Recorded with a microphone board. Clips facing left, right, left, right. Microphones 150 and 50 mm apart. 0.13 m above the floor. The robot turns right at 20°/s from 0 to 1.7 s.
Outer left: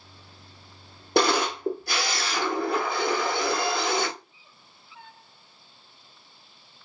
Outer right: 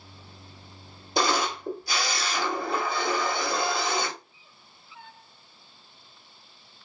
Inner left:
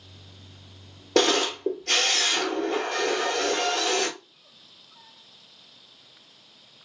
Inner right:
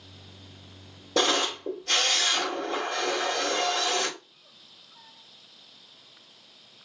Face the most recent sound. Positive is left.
turn(degrees=65)  # may be behind; listen again after turning